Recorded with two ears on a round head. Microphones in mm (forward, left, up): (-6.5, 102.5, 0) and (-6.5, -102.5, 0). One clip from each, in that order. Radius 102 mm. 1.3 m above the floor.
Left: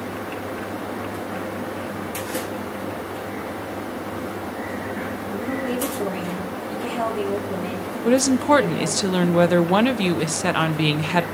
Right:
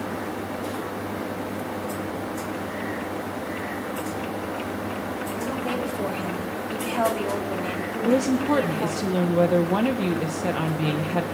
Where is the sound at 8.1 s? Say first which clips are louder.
Left 5 dB; 45° left (ahead or behind), 0.5 m.